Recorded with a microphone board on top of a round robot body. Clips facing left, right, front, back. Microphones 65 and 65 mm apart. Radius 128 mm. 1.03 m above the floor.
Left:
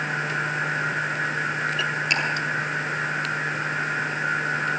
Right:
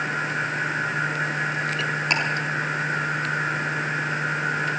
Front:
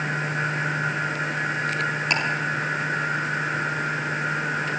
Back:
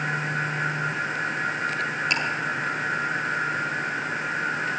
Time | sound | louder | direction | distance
2.1 | ticking | right 2 dB, front 2 dB | 40° right | 4.5 m